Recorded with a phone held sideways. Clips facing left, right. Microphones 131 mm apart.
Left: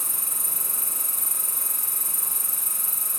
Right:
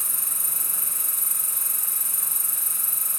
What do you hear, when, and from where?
0.0 s an insect: 65° left (ahead or behind), 3.5 m